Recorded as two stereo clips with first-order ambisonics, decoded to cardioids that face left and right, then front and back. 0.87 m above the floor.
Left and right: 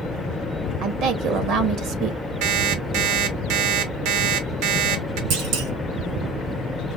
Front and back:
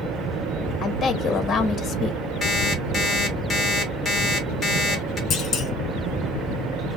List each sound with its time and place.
0.8 s a woman speaking: 65° right, 1.2 m
2.4 s an alarm clock: 85° right, 1.6 m
5.3 s a clunk: 60° right, 2 m